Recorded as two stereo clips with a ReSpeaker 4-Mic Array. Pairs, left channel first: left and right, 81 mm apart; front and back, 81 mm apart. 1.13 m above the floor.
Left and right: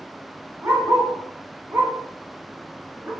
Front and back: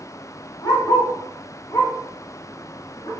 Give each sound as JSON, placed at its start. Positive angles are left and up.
{"t": 0.6, "sound": "a dog barking", "azimuth_deg": -35, "distance_m": 2.5}